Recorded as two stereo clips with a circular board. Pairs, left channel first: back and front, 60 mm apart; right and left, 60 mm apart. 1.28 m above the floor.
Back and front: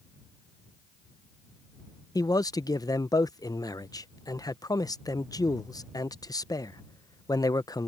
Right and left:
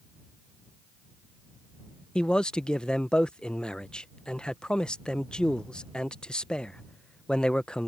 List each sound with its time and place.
2.1 s a man speaking: 165° right